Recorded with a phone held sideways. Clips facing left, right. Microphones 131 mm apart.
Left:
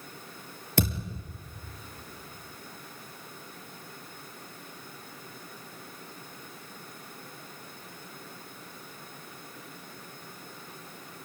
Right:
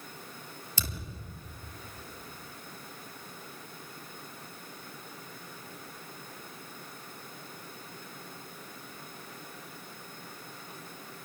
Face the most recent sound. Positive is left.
turn(degrees=65)  # may be behind; listen again after turning